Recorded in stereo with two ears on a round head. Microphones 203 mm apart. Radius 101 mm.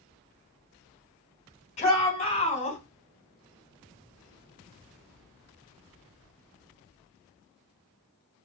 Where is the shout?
30° left (ahead or behind), 5 m.